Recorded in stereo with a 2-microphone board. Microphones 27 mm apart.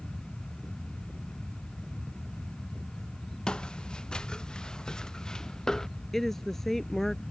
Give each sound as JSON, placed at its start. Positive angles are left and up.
{"t": 3.5, "sound": "footsteps", "side_deg": 35}
{"t": 6.1, "sound": "a woman speaking", "side_deg": 10}